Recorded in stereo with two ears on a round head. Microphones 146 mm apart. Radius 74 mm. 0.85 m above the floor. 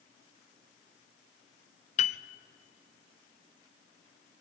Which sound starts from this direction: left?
A piano, at 2.0 s.